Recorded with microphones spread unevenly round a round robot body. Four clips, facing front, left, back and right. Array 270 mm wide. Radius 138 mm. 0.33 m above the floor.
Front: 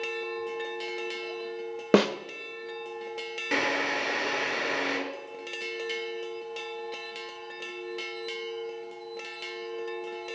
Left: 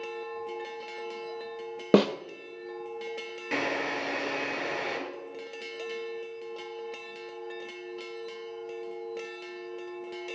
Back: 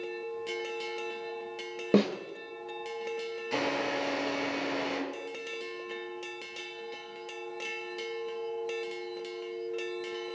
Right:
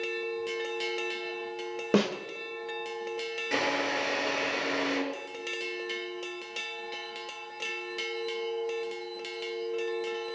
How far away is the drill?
About 7 m.